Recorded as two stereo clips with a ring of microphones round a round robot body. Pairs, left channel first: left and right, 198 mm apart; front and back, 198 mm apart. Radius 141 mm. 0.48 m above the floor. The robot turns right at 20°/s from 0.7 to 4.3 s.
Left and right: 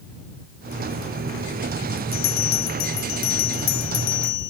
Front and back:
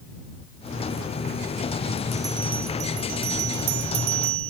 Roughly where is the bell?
Left.